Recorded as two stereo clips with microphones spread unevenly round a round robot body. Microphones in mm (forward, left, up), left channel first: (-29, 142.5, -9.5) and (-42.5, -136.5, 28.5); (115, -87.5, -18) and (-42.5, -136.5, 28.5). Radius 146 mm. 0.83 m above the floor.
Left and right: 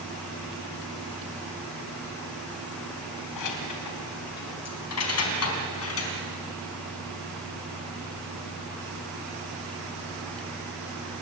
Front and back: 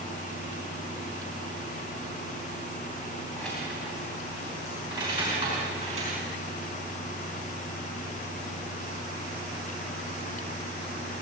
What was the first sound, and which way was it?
Keys jangling, 105° left.